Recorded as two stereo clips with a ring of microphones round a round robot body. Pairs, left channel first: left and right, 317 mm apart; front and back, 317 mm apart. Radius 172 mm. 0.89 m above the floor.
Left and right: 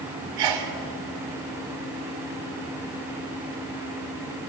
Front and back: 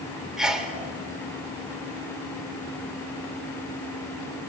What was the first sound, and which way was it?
A sneeze, 90° right.